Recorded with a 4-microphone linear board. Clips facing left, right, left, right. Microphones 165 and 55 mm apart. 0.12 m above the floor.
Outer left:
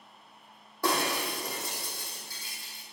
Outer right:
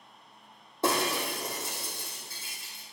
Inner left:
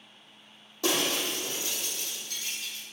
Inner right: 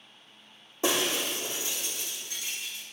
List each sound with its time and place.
0.8 s breaking glass: 25° right (ahead or behind), 3 m